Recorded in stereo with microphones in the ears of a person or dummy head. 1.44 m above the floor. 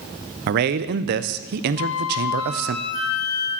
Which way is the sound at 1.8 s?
45° left (ahead or behind).